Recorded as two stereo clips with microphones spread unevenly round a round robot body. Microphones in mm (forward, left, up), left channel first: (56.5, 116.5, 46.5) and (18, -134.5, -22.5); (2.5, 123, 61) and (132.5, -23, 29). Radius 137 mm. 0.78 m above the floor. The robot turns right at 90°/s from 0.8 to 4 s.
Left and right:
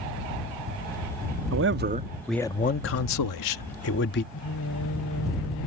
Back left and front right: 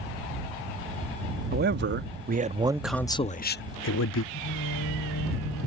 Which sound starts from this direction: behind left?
Singing, at 4.3 s.